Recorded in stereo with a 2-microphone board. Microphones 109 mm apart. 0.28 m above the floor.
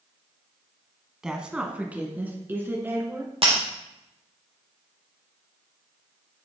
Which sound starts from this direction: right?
Breaking glass, at 3.4 s.